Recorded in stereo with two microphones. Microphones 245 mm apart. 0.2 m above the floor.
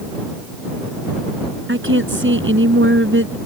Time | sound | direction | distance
1.7 | a woman speaking | 55° right (ahead or behind) | ?